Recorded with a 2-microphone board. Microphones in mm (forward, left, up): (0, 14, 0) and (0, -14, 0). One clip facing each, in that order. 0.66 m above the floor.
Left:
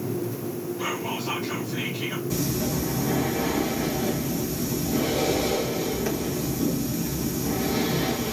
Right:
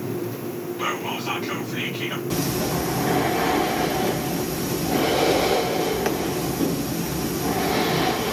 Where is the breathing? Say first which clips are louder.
Right 3 dB; 55° right (ahead or behind), 0.8 m.